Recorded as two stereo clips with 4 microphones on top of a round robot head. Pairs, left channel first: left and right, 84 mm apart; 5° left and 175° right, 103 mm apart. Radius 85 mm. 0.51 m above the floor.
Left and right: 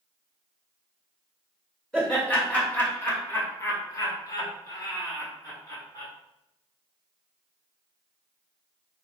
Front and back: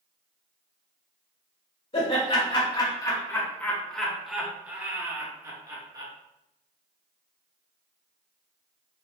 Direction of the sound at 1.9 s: 15° left.